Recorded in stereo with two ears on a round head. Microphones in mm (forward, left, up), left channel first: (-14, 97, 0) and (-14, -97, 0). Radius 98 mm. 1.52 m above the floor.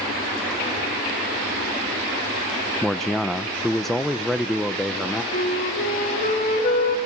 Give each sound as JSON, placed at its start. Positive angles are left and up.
{"t": 2.8, "sound": "a man speaking", "side_deg": 0, "distance_m": 0.7}
{"t": 5.3, "sound": "a flute", "side_deg": 35, "distance_m": 2.5}